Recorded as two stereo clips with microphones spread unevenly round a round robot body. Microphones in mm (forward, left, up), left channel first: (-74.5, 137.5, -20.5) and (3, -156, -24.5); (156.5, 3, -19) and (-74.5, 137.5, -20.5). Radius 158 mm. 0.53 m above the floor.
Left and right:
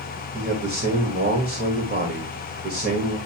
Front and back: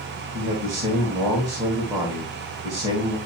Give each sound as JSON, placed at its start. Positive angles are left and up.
{"t": 0.3, "sound": "a man speaking", "azimuth_deg": -135, "distance_m": 1.7}